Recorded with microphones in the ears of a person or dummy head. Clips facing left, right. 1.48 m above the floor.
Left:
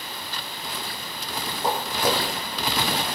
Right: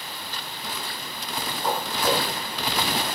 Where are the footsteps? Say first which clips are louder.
Left 1 dB; 35° left (ahead or behind), 6 m.